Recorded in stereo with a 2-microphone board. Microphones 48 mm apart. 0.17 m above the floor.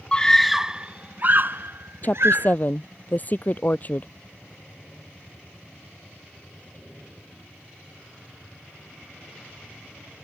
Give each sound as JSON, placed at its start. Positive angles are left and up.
{"t": 0.1, "sound": "a scream", "side_deg": 20}
{"t": 2.0, "sound": "a woman speaking", "side_deg": 35}